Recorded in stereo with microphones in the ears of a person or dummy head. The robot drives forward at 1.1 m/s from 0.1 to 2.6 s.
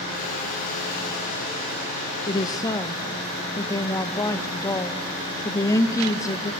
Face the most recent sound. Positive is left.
turn(degrees=20)  # may be behind; listen again after turning